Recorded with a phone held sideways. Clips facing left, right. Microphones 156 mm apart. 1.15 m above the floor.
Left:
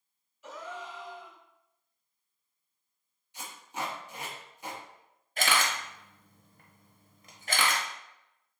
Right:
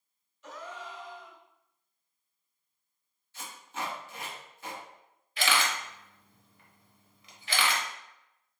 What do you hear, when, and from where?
0.4 s a gasp: 10° left (ahead or behind), 0.9 m
3.3 s tape being pulled: 15° left (ahead or behind), 1.3 m
5.4 s a camera shutter: 45° left (ahead or behind), 0.8 m